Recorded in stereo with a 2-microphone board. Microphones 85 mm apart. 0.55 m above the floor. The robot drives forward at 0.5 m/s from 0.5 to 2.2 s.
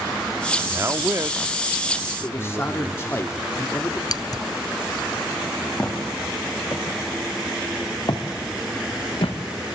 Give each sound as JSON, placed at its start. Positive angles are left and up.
{"t": 0.7, "sound": "a man speaking", "side_deg": -30, "distance_m": 0.7}
{"t": 2.2, "sound": "a man speaking", "side_deg": 30, "distance_m": 1.5}
{"t": 4.1, "sound": "scissors", "side_deg": 45, "distance_m": 0.7}
{"t": 5.8, "sound": "footsteps", "side_deg": 25, "distance_m": 6.0}